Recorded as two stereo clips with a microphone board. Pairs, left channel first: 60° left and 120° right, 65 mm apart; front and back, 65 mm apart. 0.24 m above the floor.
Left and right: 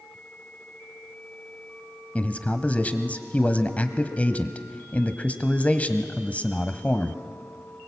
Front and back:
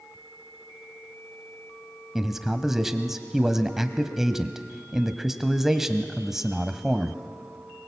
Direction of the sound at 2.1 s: 100° left.